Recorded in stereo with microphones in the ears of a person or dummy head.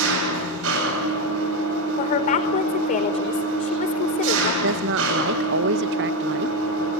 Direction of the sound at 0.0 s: 70° right (ahead or behind).